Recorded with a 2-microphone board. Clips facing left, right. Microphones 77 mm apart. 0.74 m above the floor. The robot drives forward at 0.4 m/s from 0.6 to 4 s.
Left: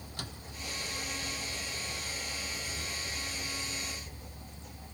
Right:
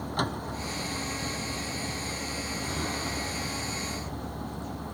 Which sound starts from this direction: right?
A vehicle, at 0.0 s.